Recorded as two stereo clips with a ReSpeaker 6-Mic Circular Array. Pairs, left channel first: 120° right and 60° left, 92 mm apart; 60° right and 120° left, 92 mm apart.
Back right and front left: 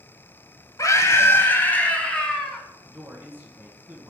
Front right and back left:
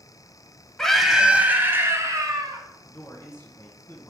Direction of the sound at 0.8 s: 140° right.